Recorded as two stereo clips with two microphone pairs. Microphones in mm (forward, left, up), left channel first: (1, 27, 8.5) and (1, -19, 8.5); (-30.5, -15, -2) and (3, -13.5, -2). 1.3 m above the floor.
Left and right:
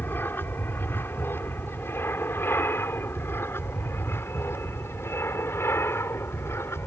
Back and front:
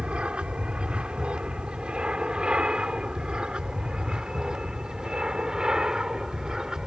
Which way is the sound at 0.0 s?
55° left.